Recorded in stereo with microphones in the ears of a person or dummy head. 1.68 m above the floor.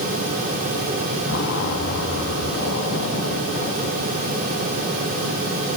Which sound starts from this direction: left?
A zipper, at 1.3 s.